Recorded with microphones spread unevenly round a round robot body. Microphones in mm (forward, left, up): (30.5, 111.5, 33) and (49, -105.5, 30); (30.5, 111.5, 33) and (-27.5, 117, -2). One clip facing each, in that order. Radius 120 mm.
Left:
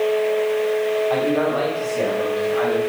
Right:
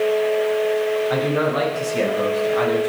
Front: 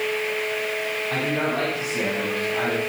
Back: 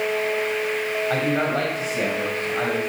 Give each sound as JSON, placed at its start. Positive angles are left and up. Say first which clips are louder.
{"t": 1.1, "sound": "a man speaking", "louder": "left 1 dB, back 2 dB", "azimuth_deg": -160, "distance_m": 5.0}